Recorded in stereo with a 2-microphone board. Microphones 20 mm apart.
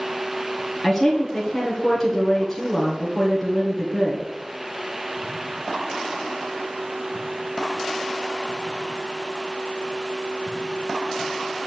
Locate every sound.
0.8 s a woman speaking: 5° left (ahead or behind), 2 m